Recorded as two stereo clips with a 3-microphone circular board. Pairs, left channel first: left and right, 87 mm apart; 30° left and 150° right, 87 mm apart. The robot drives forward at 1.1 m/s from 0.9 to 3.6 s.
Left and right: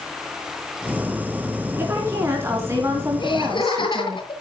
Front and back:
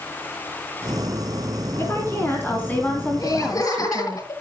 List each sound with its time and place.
1.8 s a woman speaking: 30° right, 4 m; by 4.2 s 50° right, 2.5 m
3.2 s laughter: 70° left, 7.5 m; by 4.3 s 75° left, 7 m